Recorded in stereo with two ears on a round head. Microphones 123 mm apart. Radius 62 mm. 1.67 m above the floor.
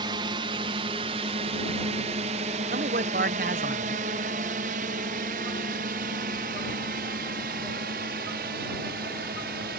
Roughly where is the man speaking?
Right.